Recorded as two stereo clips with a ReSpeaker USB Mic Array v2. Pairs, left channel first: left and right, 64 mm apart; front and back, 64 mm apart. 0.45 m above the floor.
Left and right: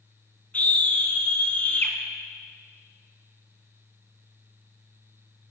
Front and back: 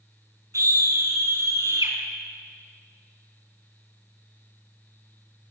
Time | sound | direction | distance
0.5 | a scream | 155° left | 5.5 m